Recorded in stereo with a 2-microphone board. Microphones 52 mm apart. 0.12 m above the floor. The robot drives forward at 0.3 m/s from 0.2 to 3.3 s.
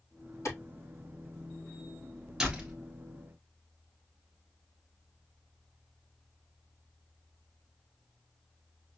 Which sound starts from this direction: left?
A clap, at 0.5 s.